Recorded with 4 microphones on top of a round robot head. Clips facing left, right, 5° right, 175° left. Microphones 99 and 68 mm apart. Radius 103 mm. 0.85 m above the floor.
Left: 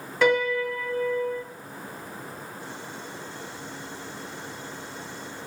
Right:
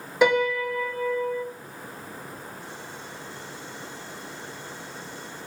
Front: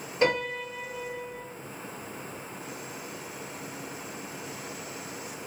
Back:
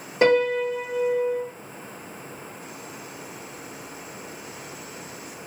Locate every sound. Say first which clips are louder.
0.2 s a piano: right 1 dB, back 8 dB; 165° right, 1.4 m